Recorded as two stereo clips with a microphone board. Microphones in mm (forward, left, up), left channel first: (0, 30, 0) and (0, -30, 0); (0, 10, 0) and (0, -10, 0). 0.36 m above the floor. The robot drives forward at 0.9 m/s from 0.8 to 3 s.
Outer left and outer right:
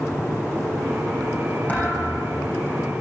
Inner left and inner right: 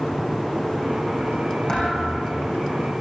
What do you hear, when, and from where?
1.7 s a thud: 25° left (ahead or behind), 10 m